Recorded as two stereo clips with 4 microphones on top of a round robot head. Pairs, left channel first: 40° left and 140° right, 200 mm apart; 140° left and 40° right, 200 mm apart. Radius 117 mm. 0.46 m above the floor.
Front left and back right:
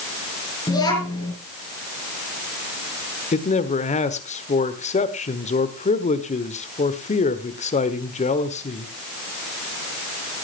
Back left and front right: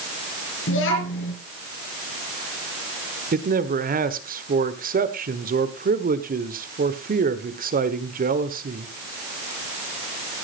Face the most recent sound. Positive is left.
turn(degrees=-5)